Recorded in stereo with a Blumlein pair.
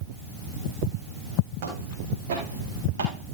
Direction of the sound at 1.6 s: 55° right.